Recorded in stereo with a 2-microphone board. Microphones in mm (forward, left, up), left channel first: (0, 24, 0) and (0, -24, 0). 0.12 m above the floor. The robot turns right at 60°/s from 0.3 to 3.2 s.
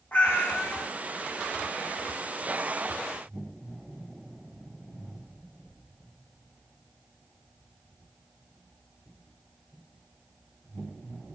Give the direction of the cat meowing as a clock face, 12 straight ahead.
11 o'clock.